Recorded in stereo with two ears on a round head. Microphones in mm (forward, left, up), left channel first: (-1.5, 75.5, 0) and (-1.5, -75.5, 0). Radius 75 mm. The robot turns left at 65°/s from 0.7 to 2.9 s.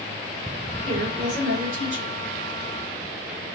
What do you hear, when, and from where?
0.8 s a woman speaking: 30° right, 3.5 m; by 2.2 s 115° right, 3.5 m